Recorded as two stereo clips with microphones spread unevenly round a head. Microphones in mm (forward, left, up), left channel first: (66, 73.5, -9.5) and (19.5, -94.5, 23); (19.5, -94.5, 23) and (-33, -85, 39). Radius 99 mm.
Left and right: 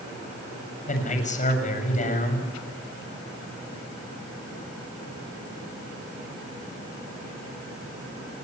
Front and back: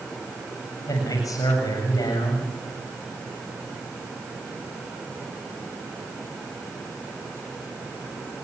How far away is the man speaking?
About 7 m.